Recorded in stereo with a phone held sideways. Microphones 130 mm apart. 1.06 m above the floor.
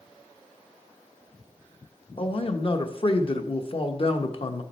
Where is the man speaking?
45° left (ahead or behind), 0.9 m.